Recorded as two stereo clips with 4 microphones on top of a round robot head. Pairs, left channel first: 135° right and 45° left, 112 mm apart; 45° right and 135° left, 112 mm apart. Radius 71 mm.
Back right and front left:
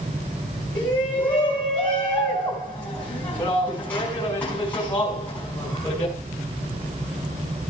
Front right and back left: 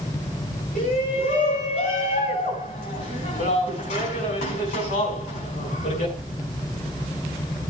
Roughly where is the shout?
Ahead right.